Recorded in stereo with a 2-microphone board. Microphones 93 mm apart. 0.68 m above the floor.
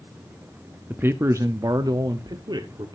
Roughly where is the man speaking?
Right.